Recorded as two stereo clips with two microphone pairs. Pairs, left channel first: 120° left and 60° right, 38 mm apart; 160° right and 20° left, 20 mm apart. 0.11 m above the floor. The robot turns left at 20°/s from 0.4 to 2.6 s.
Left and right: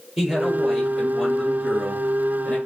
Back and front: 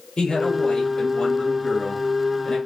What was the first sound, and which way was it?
A man speaking, 130° right.